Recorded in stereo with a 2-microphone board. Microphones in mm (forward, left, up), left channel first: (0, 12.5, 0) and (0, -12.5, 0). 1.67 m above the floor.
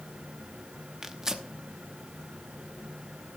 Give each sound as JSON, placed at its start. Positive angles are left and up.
{"t": 1.0, "sound": "tearing paper", "side_deg": -20, "distance_m": 0.8}